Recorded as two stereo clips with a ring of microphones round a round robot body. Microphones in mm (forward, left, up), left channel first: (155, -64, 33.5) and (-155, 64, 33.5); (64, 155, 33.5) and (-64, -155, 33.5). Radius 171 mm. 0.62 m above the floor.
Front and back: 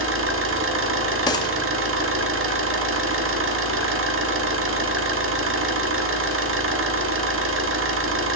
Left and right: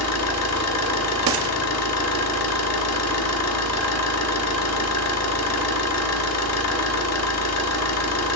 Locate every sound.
0.0 s an engine running: 110° left, 1.2 m
1.3 s a gunshot: 95° right, 1.1 m